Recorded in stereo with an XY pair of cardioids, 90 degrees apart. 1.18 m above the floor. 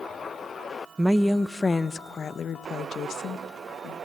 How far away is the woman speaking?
About 0.7 m.